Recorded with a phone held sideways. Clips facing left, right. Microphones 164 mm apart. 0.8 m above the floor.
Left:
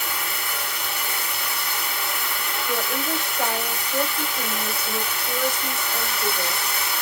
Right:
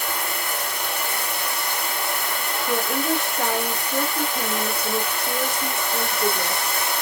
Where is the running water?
50° right (ahead or behind), 1.3 m.